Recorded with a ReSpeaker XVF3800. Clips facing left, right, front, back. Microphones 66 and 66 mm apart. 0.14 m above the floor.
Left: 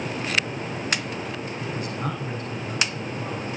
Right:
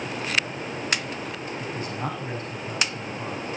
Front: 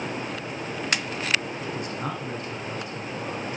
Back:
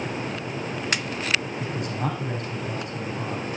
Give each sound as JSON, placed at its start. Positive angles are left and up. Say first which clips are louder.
{"t": 1.6, "sound": "a man speaking", "louder": "left 1 dB, back 2 dB", "azimuth_deg": -140, "distance_m": 7.5}